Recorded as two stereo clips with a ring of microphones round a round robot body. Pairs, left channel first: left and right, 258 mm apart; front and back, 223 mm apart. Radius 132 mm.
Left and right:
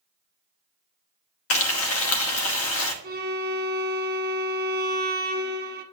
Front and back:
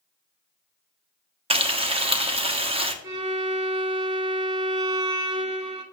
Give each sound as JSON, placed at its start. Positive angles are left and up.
{"t": 1.5, "sound": "frying", "azimuth_deg": 115, "distance_m": 1.1}
{"t": 3.0, "sound": "a violin", "azimuth_deg": -140, "distance_m": 1.5}